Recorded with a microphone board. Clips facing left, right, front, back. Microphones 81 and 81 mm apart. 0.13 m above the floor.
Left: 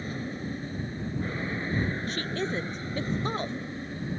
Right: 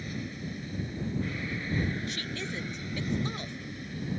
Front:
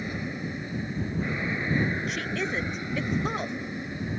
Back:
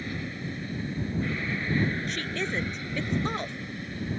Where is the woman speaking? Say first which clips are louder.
Left 6 dB, front 1 dB; 85° left.